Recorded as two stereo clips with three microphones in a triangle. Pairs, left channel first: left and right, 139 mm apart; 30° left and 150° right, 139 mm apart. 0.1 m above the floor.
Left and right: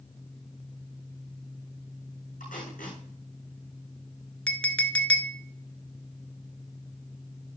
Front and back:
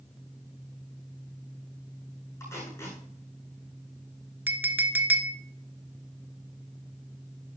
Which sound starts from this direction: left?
Tape being pulled, at 2.4 s.